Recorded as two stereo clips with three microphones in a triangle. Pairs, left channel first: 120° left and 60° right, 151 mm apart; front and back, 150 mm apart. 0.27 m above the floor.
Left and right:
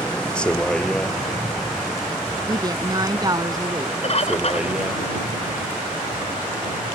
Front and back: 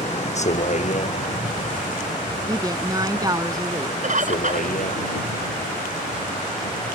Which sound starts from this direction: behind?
A bird, at 4.0 s.